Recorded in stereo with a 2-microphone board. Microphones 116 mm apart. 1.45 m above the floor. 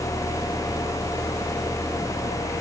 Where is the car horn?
I don't hear a car horn.